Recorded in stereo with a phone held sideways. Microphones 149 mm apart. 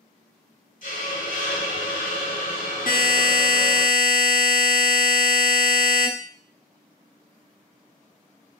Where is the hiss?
65° left (ahead or behind), 0.8 m.